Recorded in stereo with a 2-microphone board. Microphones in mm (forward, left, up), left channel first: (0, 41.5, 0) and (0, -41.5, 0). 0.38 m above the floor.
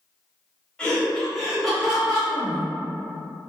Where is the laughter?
10° left (ahead or behind), 1.1 m; by 2.2 s 5° right (ahead or behind), 1.1 m.